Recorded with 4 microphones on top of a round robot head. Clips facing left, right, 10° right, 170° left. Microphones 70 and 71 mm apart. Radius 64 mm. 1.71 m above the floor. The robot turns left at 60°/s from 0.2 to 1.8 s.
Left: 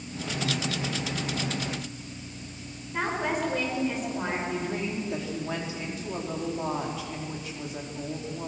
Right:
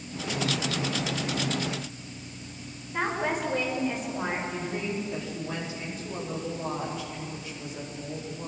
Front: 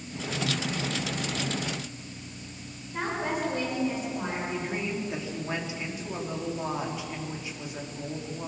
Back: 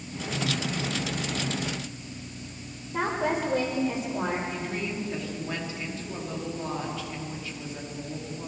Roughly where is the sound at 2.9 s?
Behind.